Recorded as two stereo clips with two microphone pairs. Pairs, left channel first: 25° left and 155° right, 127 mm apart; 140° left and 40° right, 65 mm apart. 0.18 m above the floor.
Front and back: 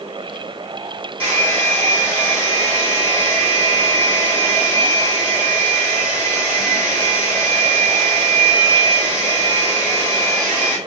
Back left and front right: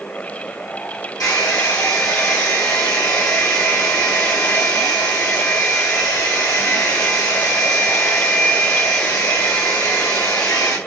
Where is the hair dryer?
125° left, 2 m.